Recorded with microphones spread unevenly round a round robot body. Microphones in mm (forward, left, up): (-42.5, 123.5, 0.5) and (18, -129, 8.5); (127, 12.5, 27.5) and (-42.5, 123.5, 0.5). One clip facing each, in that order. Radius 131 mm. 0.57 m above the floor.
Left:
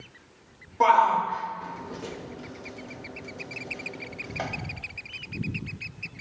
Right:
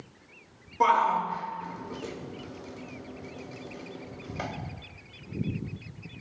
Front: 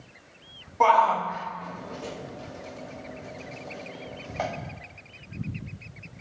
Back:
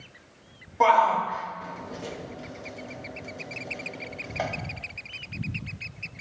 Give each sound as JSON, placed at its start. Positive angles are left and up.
{"t": 0.8, "sound": "a shout", "azimuth_deg": -155, "distance_m": 0.9}